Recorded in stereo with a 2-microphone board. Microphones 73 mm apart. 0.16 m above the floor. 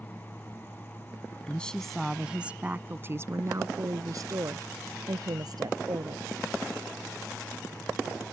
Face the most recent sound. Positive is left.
turn(degrees=-65)  # may be behind; listen again after turning